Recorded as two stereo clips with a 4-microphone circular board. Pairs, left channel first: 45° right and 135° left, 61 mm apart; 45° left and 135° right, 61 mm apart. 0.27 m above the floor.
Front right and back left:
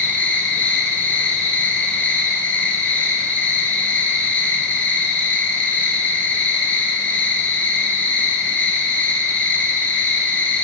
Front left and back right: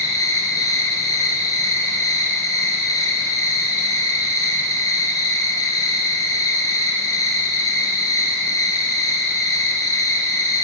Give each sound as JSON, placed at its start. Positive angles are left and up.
{"t": 0.0, "sound": "an insect", "azimuth_deg": 20, "distance_m": 1.5}